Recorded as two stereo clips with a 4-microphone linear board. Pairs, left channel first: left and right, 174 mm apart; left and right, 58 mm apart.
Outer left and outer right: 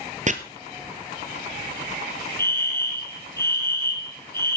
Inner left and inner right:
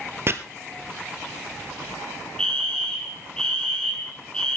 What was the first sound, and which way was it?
Chopping, 45° right (ahead or behind).